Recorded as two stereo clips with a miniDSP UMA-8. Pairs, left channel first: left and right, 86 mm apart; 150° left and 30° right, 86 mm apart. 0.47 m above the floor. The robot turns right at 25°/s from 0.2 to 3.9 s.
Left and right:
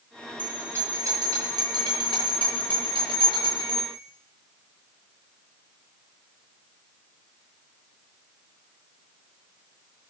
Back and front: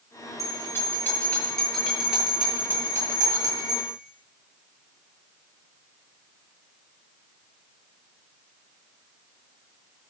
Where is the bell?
160° right, 8.5 m; by 3.9 s 70° right, 8.5 m.